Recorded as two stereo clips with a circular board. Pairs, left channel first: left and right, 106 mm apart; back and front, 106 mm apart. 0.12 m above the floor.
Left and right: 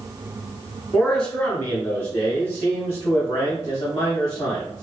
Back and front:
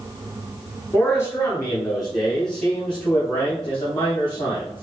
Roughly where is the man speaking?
Behind.